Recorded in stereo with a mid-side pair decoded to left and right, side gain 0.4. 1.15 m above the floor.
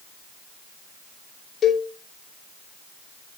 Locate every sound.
1.6 s a cowbell: 55° left, 3 m